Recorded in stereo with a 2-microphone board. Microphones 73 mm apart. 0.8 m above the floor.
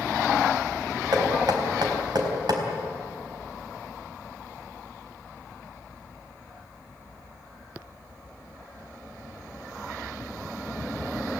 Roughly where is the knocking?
Right.